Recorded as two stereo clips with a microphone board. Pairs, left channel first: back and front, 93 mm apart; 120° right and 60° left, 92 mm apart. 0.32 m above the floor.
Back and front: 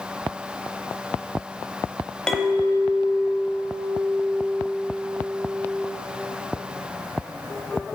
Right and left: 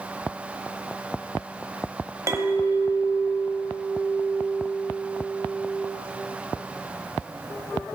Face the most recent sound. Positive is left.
turn(degrees=100)